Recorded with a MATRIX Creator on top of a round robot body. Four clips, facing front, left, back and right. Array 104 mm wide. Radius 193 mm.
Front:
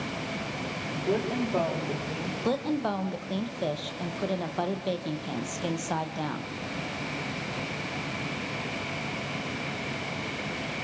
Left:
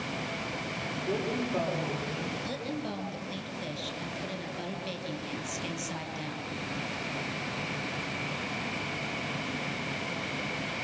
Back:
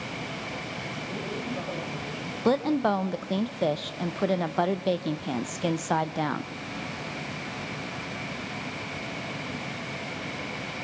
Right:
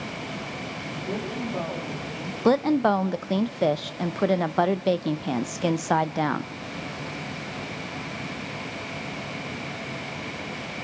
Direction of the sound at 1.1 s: 5° left.